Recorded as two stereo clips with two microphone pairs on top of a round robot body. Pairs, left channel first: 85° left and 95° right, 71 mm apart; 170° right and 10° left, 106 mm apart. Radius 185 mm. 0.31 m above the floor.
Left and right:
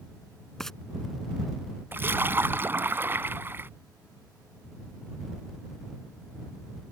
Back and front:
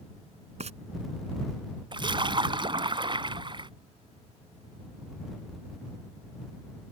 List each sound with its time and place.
0.6 s frying: straight ahead
1.9 s a splash: 35° right